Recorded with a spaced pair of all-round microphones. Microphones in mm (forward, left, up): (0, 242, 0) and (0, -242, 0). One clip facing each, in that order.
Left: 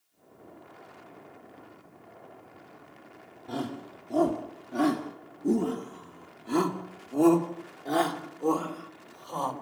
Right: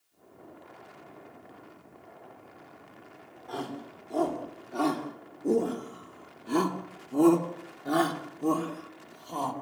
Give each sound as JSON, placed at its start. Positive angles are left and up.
{"t": 3.5, "sound": "a shout", "side_deg": 55, "distance_m": 3.0}